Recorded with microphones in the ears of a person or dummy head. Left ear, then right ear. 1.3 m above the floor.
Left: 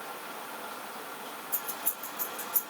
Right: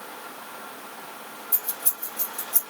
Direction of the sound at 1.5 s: 70° right (ahead or behind).